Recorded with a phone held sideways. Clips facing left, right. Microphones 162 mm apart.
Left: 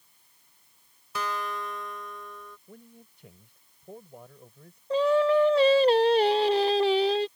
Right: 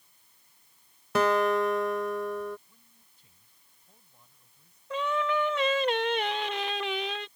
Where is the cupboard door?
No cupboard door in this recording.